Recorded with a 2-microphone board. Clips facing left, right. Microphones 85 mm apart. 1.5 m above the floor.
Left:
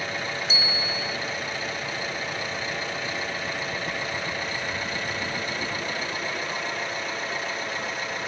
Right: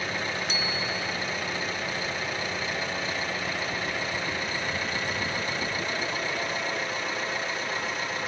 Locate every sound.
0.5 s a bicycle bell: 65° right (ahead or behind)